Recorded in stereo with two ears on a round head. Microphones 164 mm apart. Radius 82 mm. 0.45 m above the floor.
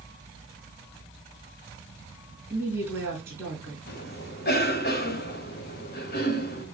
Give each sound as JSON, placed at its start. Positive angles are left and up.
{"t": 2.5, "sound": "a woman speaking", "side_deg": -15, "distance_m": 4.0}
{"t": 3.9, "sound": "a cough", "side_deg": 60, "distance_m": 3.0}